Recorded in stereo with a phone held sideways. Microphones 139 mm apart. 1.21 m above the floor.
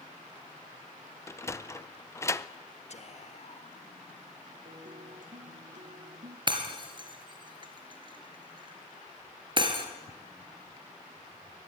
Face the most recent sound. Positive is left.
turn(degrees=-35)  # may be behind; listen again after turning